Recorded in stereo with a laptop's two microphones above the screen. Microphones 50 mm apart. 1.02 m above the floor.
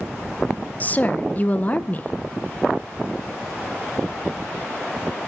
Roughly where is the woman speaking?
Left.